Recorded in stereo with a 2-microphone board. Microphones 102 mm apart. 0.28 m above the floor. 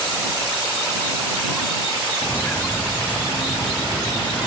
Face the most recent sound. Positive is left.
turn(degrees=5)  # may be behind; listen again after turning